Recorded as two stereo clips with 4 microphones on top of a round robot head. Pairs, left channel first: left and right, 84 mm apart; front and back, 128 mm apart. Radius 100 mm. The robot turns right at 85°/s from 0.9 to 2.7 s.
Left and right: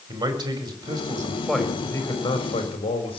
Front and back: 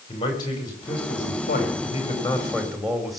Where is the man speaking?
60° right, 4.5 m; by 3.2 s 90° left, 4.5 m.